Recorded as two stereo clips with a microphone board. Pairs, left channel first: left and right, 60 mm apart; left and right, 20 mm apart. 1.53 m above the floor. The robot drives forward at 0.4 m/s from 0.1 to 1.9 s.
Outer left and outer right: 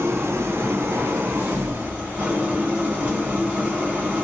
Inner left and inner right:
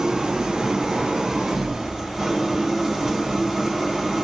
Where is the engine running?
45° right (ahead or behind), 0.8 m; by 4.2 s 30° right (ahead or behind), 1.1 m.